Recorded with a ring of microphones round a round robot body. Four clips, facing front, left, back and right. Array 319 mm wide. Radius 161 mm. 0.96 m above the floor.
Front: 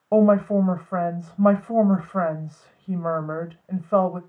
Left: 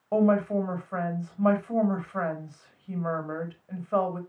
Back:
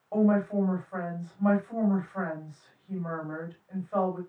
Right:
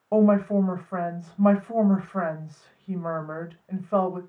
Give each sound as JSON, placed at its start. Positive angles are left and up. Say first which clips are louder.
{"t": 0.1, "sound": "a woman speaking", "louder": "right 3 dB, front 8 dB", "azimuth_deg": -15, "distance_m": 4.5}